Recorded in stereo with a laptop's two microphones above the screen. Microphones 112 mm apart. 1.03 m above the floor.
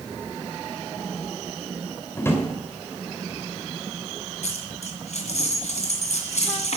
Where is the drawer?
20° left (ahead or behind), 3 m.